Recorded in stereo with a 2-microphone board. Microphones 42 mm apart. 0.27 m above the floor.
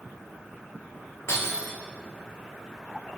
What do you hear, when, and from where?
1.3 s breaking glass: 90° left, 7.5 m